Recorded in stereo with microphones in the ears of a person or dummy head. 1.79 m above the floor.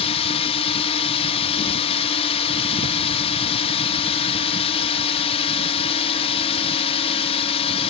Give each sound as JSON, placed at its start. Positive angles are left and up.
{"t": 0.0, "sound": "a drone", "side_deg": 30}